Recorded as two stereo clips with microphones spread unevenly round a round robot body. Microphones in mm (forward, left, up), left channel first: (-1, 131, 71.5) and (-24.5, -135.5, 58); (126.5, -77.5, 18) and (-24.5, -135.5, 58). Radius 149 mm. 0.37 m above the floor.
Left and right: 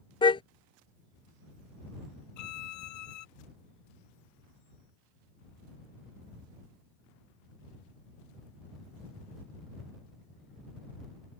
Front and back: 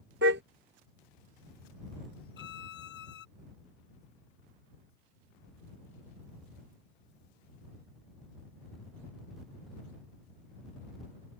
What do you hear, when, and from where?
0.2 s a car horn: 160° left
2.4 s a violin: 55° left